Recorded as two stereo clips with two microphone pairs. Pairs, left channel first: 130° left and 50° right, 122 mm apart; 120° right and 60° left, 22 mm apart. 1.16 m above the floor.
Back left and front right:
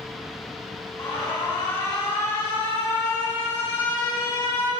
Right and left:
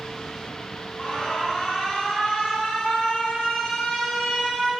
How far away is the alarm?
About 2 m.